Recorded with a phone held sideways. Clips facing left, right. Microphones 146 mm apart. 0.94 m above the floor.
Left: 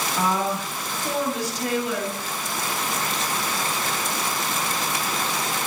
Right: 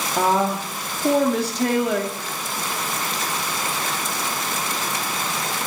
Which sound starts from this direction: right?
A woman speaking, at 0.2 s.